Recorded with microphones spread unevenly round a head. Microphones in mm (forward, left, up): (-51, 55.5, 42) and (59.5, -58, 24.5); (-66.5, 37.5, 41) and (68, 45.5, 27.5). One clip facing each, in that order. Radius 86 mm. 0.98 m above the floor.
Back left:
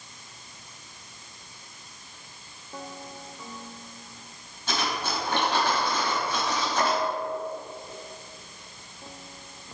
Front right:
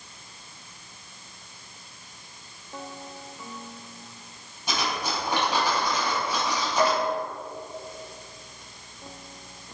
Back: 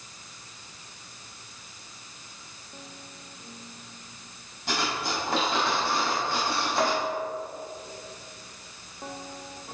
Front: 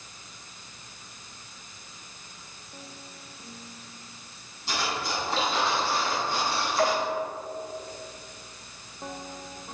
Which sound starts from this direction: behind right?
Cutlery clinking, at 4.7 s.